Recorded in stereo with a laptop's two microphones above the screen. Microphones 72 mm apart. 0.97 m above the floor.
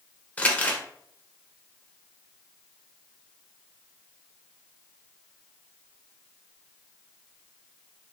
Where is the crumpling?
20° left (ahead or behind), 0.7 m.